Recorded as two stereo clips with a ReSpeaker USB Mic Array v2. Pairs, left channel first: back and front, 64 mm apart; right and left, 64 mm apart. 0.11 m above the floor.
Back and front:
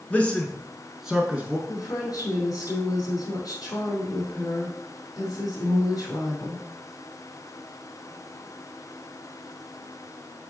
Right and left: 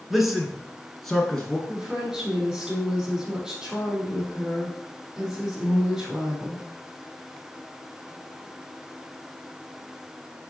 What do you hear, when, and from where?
0.1 s a man speaking: 170° left, 1.3 m; by 1.6 s 25° right, 1.3 m
1.7 s a woman speaking: 170° left, 3.5 m